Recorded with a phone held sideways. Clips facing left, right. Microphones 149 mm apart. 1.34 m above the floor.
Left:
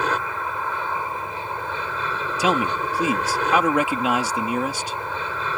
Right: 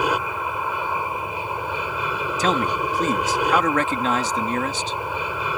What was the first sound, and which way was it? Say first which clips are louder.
An aircraft: right 2 dB; 10° right (ahead or behind).